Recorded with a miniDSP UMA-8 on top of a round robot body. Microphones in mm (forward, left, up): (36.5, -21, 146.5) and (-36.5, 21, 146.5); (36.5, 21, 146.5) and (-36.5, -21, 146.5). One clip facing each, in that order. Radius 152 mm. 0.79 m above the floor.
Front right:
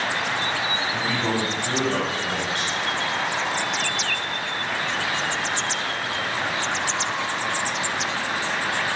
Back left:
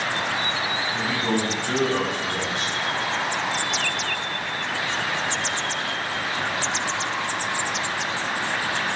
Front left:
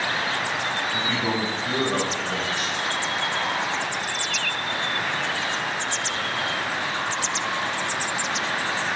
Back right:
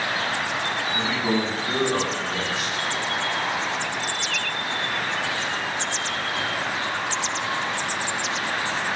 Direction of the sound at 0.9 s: 10° right.